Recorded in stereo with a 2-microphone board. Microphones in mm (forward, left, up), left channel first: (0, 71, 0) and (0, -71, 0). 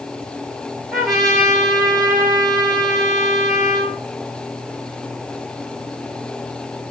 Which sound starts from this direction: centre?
A trumpet, at 0.9 s.